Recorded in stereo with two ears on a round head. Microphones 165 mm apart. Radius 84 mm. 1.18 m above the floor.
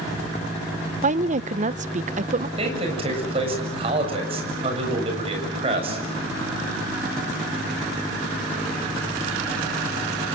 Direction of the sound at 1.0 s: 40° right (ahead or behind).